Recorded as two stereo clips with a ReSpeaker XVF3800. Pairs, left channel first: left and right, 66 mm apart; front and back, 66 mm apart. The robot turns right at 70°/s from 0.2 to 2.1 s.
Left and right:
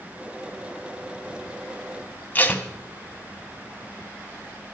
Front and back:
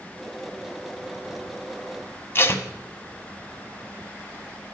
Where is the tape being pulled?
35° left, 0.6 m.